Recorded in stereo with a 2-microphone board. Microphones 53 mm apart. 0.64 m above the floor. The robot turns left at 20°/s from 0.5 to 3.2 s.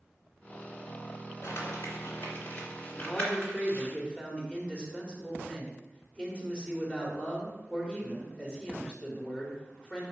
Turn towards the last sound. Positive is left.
turn(degrees=20)  # may be behind; listen again after turning